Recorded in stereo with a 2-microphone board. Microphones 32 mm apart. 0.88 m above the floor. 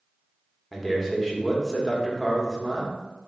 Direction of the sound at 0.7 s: Centre (ahead or behind).